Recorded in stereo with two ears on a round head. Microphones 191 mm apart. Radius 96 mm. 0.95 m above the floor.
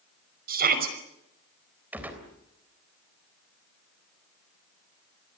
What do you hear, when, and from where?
0.5 s a shout: 45° right (ahead or behind), 5.5 m
1.9 s a gunshot: 10° right (ahead or behind), 3.5 m